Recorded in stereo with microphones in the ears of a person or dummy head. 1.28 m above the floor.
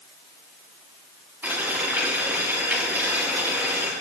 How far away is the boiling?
About 6 m.